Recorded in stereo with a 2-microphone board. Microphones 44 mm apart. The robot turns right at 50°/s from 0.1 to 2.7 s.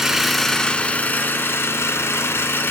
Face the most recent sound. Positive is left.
turn(degrees=120)